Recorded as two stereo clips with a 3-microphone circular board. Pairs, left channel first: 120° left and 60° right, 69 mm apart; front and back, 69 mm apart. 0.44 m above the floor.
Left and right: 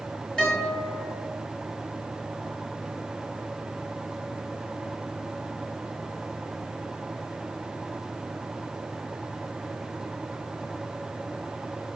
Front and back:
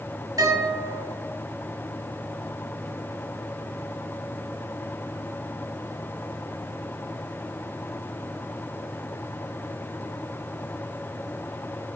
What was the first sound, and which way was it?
A guitar, 165° right.